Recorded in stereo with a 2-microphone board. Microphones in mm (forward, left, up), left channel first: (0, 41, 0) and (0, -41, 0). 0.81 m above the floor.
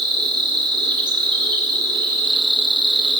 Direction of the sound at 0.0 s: 75° right (ahead or behind).